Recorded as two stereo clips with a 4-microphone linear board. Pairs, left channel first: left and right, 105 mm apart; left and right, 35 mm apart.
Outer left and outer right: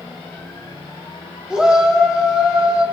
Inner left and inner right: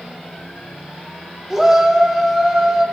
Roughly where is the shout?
Centre.